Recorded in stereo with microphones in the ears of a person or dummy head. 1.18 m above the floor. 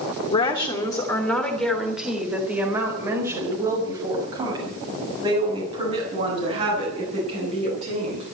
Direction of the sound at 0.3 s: 30° left (ahead or behind).